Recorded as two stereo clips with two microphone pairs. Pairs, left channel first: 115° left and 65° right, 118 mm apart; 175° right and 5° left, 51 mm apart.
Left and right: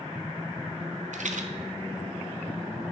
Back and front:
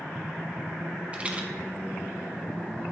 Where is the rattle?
60° right, 0.7 m.